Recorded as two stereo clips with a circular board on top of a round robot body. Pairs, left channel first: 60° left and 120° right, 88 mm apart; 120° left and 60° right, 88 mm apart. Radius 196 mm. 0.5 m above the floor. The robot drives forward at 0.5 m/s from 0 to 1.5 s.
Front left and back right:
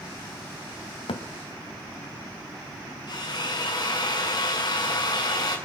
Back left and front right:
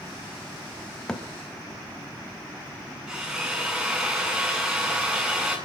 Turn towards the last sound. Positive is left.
turn(degrees=25)